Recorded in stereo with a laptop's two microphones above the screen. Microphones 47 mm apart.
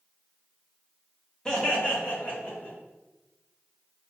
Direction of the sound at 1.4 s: 15° left (ahead or behind).